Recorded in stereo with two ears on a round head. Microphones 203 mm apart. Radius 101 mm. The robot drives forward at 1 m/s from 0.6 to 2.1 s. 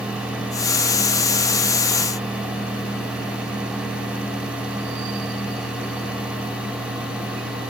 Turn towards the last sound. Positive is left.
No sound to turn to.